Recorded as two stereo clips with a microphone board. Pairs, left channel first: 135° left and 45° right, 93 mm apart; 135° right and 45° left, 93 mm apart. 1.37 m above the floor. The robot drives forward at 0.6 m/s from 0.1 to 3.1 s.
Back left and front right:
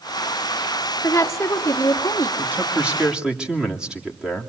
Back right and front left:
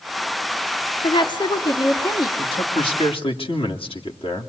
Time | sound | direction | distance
1.0 | a woman speaking | 165° right | 1.2 m
2.4 | a man speaking | 120° right | 2.5 m